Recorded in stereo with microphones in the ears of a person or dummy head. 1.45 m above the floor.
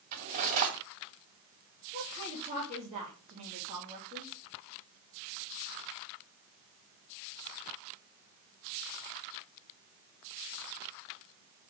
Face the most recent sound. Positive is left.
turn(degrees=-30)  # may be behind; listen again after turning